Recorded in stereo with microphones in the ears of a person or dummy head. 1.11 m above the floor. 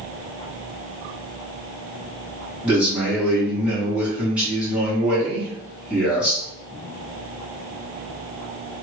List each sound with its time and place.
2.6 s a man speaking: 10° right (ahead or behind), 1.7 m